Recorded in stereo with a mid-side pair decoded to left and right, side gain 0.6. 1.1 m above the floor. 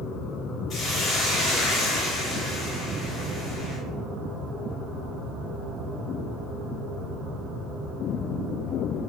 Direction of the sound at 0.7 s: 45° left.